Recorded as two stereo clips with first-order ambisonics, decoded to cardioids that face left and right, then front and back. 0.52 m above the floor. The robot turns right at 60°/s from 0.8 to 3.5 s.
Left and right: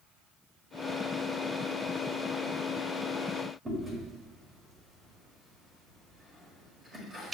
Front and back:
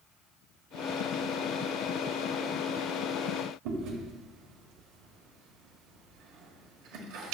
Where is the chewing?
165° right, 1.6 m.